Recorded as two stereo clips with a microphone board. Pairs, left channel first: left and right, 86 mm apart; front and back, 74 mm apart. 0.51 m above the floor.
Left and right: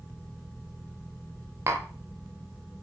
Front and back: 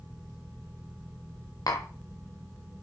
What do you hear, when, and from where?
1.7 s tapping: 35° right, 0.5 m